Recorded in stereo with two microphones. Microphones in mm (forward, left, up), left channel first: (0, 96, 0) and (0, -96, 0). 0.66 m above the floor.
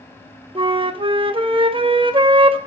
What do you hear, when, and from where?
0.6 s a flute: 30° right (ahead or behind), 0.7 m